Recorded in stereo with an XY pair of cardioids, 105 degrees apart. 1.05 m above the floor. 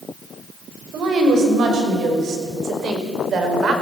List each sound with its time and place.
0.9 s a woman speaking: 65° right, 6 m; by 3.7 s 55° right, 5 m